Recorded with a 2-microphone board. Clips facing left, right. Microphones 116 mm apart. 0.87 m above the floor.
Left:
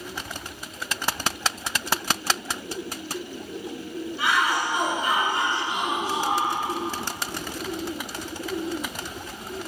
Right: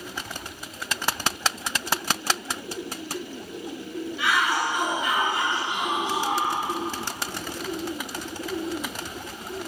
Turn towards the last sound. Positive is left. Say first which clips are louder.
# left 1 dB
turn(degrees=40)  # may be behind; listen again after turning